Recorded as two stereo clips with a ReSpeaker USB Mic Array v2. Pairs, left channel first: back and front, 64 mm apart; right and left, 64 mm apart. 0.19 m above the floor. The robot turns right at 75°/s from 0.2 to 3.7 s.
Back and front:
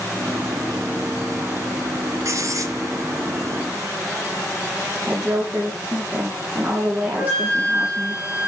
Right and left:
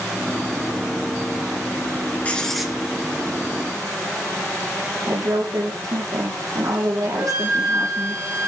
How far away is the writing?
About 2.5 m.